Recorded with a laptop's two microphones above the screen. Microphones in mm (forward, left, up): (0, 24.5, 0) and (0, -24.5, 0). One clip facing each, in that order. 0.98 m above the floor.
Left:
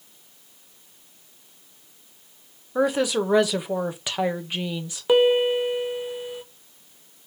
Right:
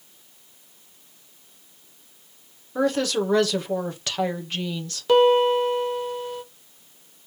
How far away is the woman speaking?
About 0.6 m.